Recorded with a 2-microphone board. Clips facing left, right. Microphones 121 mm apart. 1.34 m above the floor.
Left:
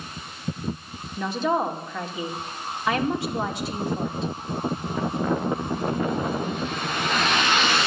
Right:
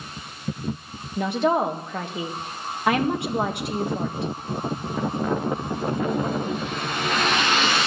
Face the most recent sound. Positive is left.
turn(degrees=-65)  # may be behind; listen again after turning